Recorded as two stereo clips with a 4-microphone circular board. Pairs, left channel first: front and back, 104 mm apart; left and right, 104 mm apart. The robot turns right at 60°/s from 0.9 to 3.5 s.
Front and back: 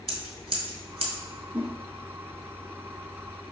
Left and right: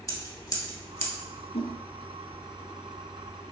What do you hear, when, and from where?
0.1 s scissors: 145° left, 0.9 m; by 1.1 s 160° left, 0.9 m
1.5 s a whoosh: 100° left, 0.7 m; by 1.8 s 115° left, 0.7 m